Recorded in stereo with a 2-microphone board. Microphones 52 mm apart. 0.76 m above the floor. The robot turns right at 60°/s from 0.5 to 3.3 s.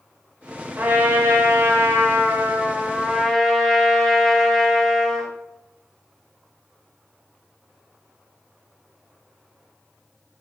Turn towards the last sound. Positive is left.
turn(degrees=5)